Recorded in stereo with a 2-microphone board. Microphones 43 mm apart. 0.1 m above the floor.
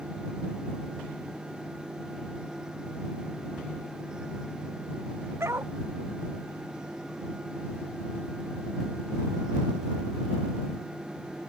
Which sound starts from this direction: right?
A dog barking, at 5.4 s.